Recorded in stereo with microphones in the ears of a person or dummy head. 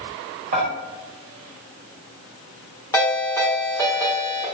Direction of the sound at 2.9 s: 15° left (ahead or behind).